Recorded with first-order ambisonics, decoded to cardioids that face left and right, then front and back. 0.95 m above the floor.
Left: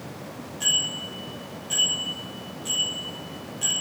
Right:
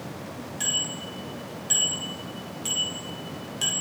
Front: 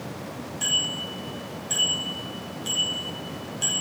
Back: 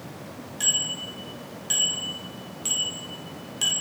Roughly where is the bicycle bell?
Behind right.